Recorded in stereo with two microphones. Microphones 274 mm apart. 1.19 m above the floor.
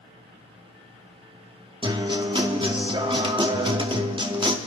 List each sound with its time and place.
1.8 s a guitar: 20° right (ahead or behind), 0.7 m